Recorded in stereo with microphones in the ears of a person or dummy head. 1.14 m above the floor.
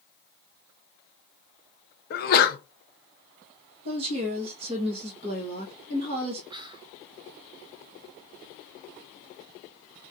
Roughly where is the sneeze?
Left.